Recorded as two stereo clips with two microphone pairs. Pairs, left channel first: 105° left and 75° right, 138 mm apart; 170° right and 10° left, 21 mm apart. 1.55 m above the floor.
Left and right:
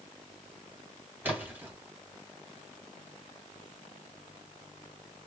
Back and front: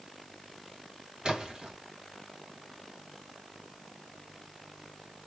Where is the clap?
No clap in this recording.